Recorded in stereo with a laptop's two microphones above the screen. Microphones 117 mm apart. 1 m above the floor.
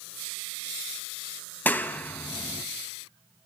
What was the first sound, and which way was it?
A clap, 15° left (ahead or behind).